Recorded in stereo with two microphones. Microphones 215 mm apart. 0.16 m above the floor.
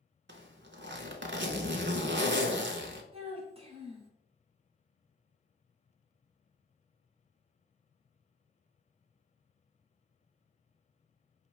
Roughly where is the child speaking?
Right.